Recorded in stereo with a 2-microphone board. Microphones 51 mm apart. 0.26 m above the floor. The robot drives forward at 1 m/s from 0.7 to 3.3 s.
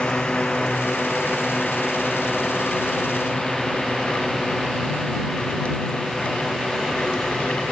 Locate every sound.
0.0 s a drone: 15° left (ahead or behind); by 7.7 s centre (ahead or behind)